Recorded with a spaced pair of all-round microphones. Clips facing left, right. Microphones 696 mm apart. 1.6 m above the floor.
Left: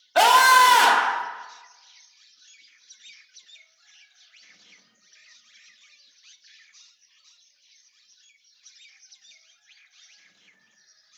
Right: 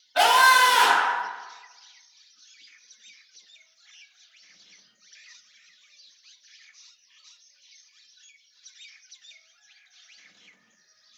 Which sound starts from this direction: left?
A scream, at 0.1 s.